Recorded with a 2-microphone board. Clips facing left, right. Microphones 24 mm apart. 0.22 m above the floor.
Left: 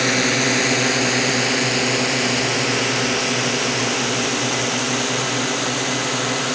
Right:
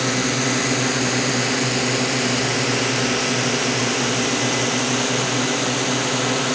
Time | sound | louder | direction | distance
0.0 | a drone | left 3 dB | 30° left (ahead or behind) | ?